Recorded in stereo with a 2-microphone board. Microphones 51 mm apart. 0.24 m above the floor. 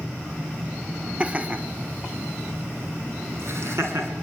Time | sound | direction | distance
1.2 | laughter | 25° right (ahead or behind) | 1.8 m